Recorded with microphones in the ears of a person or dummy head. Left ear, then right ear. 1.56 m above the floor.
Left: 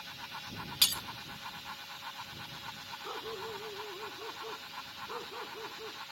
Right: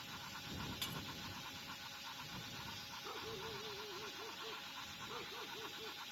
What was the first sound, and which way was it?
Breaking glass, 55° left (ahead or behind).